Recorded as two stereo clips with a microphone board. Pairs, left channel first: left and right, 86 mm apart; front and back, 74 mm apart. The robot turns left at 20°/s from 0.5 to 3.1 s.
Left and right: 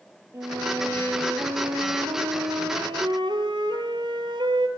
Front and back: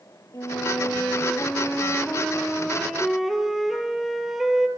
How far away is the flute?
About 2.5 m.